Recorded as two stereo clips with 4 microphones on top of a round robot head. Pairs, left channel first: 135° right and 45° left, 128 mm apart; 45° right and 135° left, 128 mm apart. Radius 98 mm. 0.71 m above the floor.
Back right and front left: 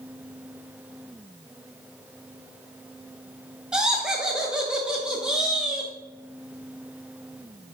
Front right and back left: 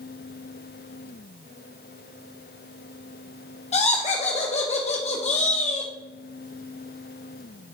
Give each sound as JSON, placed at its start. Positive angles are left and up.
{"t": 3.7, "sound": "laughter", "azimuth_deg": -35, "distance_m": 1.1}